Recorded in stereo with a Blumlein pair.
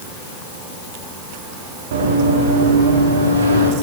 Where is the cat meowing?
I don't hear a cat meowing.